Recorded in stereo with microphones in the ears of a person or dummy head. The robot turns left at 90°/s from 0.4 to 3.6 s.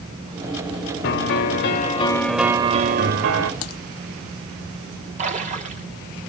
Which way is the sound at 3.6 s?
80° left.